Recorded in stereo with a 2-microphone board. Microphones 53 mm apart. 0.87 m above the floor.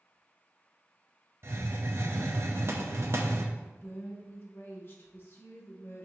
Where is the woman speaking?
50° left (ahead or behind), 1.1 m.